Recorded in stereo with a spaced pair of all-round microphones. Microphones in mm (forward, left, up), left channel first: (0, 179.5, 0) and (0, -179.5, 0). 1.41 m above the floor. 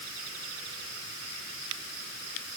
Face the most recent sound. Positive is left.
No sound to turn to.